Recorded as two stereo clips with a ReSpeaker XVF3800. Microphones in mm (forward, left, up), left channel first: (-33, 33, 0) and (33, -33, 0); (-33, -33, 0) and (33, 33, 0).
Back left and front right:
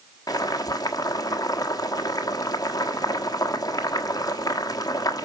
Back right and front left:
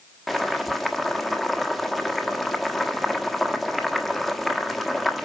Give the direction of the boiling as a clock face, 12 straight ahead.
8 o'clock.